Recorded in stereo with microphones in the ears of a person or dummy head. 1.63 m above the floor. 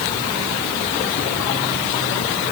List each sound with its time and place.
Only background noise.